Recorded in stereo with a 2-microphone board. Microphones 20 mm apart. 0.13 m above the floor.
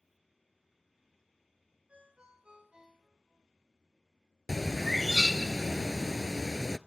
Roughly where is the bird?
Centre.